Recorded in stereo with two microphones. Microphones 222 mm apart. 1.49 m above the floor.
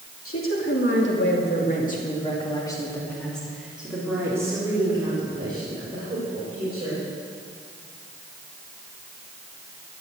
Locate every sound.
0.2 s a woman speaking: 75° left (ahead or behind), 3 m; by 7.0 s 30° right (ahead or behind), 6.5 m